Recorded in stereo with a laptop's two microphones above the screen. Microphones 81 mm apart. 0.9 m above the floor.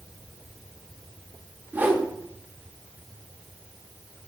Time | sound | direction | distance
1.7 | a whoosh | 25° right (ahead or behind) | 0.7 m